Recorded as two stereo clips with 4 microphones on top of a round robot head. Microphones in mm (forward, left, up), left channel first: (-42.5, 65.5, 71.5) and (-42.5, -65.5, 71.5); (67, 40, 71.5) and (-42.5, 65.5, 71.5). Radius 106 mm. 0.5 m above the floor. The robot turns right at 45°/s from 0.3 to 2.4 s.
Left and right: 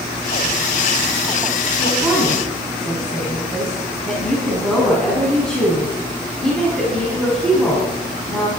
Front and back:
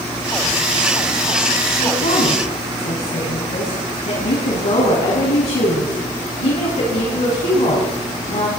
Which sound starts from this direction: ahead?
A woman speaking, at 1.8 s.